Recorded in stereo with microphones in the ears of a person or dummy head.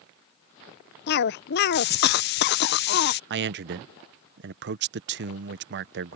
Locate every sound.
1.1 s a cough: 55° left (ahead or behind)
3.3 s a man speaking: 50° right (ahead or behind)